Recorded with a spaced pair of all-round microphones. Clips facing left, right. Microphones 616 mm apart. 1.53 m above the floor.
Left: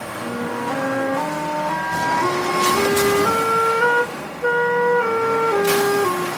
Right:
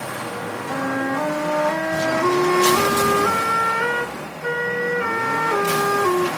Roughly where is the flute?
Centre.